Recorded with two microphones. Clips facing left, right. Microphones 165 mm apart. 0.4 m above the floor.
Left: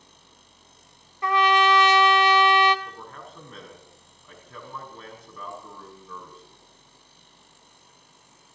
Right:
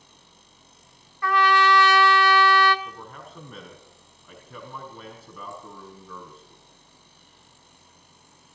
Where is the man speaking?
5° right (ahead or behind), 5 m.